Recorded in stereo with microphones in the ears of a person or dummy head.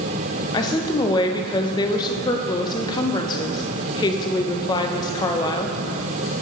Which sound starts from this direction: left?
A woman speaking, at 0.5 s.